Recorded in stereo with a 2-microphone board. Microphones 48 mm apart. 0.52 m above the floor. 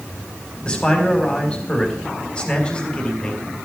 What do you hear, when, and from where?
0.7 s a man speaking: 20° left (ahead or behind), 4 m